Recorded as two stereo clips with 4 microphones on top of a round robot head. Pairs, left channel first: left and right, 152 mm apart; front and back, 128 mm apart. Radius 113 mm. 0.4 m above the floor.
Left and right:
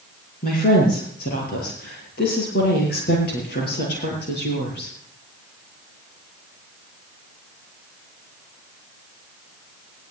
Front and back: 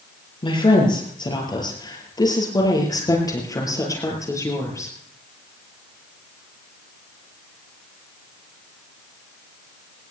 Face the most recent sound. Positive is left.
turn(degrees=65)